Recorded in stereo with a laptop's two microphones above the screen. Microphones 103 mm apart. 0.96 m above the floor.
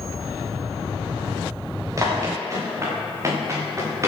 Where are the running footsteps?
30° right (ahead or behind), 6 m.